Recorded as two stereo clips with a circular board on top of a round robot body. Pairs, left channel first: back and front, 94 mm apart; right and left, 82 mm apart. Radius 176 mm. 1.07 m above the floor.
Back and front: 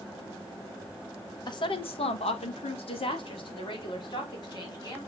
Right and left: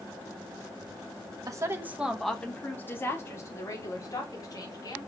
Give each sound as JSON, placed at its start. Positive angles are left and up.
{"t": 1.5, "sound": "a woman speaking", "azimuth_deg": 135, "distance_m": 1.1}